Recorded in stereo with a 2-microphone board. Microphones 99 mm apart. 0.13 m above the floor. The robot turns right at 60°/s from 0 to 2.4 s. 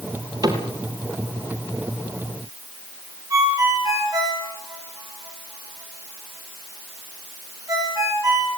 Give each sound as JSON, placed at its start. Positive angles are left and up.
{"t": 0.4, "sound": "a cupboard door", "side_deg": -40, "distance_m": 3.0}
{"t": 3.3, "sound": "a ringtone", "side_deg": -35, "distance_m": 7.0}